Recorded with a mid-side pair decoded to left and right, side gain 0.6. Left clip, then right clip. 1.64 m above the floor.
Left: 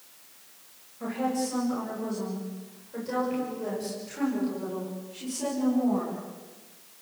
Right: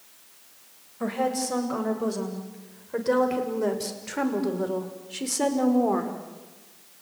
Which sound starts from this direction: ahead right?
A woman speaking, at 1.0 s.